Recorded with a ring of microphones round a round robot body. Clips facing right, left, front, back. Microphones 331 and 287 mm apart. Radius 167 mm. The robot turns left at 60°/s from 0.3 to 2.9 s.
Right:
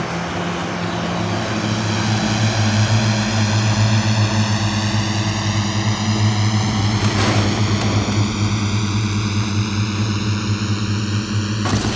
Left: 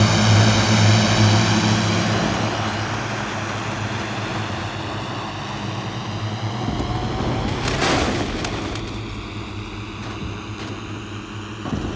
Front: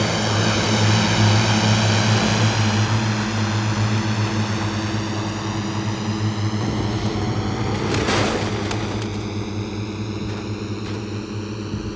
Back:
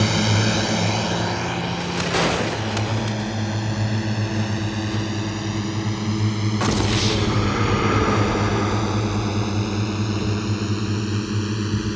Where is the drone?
105° left; by 12.0 s 110° right.